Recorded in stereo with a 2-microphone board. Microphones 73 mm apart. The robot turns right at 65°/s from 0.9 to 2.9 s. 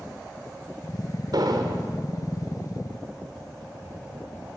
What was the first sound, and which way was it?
An explosion, 100° right.